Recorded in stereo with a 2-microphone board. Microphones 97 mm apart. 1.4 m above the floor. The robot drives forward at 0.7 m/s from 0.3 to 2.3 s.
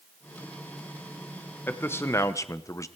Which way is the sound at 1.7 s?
20° left (ahead or behind).